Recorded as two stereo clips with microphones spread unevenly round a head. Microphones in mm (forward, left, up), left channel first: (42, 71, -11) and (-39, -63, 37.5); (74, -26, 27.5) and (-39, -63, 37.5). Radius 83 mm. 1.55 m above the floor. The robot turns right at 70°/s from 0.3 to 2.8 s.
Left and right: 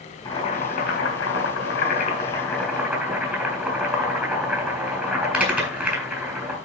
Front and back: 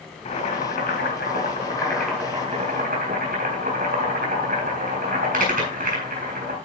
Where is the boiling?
10° right, 4 m; by 6.5 s 165° left, 4 m.